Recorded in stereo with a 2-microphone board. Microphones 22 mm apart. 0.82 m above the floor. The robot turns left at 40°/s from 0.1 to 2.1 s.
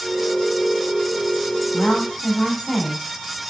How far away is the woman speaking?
About 2.5 m.